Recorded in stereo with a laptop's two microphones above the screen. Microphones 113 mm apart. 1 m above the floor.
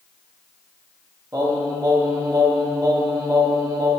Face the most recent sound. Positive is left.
turn(degrees=-30)  # may be behind; listen again after turning